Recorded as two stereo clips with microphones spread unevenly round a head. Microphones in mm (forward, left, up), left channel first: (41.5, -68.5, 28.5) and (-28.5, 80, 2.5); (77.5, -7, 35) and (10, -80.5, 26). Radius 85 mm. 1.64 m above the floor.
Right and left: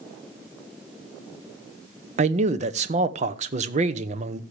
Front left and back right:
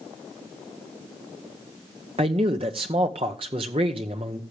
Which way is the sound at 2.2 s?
170° left.